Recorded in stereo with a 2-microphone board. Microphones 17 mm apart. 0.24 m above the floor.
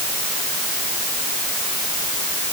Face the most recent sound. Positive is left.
No sound to turn to.